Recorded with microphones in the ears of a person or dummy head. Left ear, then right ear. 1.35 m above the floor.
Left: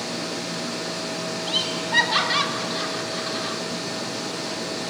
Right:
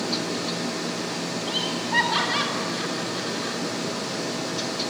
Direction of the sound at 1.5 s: 15° left (ahead or behind).